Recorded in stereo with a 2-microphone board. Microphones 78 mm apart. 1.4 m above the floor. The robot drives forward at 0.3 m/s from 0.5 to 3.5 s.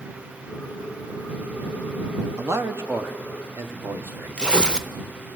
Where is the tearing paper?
10° left (ahead or behind), 0.7 m.